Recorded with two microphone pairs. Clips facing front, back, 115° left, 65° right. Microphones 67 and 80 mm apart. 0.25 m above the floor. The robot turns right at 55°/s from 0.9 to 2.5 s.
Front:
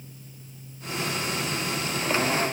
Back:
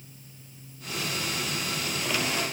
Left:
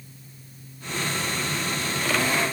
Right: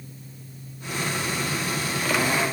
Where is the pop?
I don't hear a pop.